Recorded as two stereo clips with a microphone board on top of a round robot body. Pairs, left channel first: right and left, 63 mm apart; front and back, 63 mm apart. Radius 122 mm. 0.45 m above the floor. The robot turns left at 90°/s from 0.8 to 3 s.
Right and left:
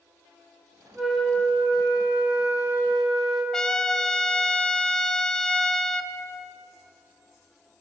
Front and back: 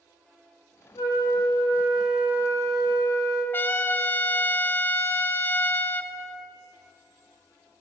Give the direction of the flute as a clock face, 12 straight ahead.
12 o'clock.